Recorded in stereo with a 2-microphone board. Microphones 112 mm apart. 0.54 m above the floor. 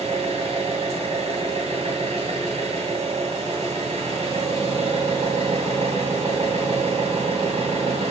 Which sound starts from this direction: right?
An engine running, at 0.0 s.